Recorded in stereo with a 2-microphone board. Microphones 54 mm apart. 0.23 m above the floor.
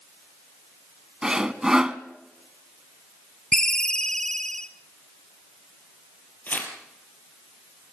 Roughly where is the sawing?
Centre.